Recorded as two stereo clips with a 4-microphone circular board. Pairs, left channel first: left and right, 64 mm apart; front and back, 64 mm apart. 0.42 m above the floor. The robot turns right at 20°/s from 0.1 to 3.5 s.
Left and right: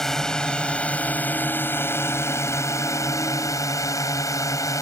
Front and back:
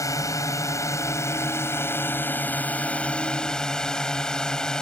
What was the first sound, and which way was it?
A drone, 10° left.